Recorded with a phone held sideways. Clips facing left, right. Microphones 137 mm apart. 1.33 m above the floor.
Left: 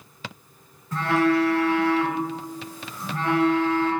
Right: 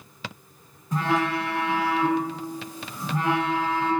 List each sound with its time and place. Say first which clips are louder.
0.9 s a phone buzzing: left 4 dB; 15° right (ahead or behind), 0.5 m